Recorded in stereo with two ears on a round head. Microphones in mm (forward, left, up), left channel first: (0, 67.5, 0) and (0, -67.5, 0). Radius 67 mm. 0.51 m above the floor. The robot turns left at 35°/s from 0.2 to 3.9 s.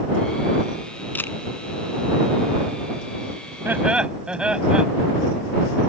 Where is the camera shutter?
10° left (ahead or behind); by 1.4 s 20° left (ahead or behind).